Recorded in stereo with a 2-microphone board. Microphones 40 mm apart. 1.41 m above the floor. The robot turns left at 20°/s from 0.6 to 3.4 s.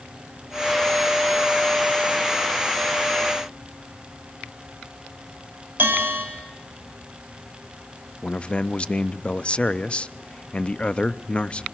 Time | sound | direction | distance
5.8 | a bell | 55° right (ahead or behind) | 6 m
8.2 | a man speaking | 25° left (ahead or behind) | 0.5 m